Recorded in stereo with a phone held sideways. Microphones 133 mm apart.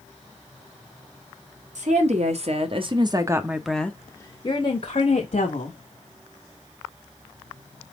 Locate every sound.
1.8 s a woman speaking: 60° right (ahead or behind), 1.2 m; by 5.8 s 60° left (ahead or behind), 1.3 m